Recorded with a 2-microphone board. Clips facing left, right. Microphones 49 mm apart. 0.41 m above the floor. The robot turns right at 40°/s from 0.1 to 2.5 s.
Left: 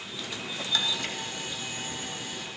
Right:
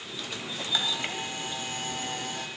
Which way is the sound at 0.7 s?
170° right.